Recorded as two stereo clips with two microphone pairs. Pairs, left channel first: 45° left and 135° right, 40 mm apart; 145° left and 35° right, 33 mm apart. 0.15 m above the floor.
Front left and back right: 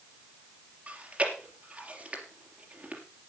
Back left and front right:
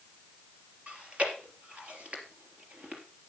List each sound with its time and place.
0.9 s chewing: 80° right, 3.5 m